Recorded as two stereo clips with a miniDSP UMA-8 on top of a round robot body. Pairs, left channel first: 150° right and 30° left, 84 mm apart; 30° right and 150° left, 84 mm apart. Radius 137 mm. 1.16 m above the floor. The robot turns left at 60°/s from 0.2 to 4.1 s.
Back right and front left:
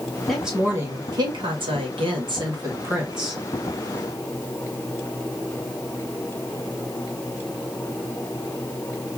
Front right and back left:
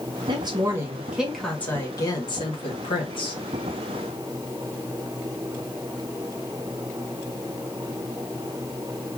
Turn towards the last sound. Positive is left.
turn(degrees=-105)